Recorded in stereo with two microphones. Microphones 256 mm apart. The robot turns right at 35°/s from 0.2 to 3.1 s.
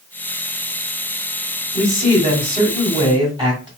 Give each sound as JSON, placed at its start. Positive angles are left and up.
{"t": 1.7, "sound": "a man speaking", "side_deg": -25, "distance_m": 1.7}